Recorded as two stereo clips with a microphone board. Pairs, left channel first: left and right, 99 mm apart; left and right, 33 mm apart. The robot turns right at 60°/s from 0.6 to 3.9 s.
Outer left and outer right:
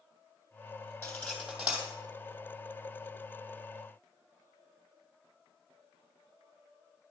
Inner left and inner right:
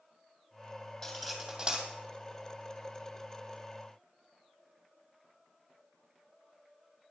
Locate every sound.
1.0 s cutlery clinking: 25° left (ahead or behind), 2.5 m; by 1.9 s 25° right (ahead or behind), 2.5 m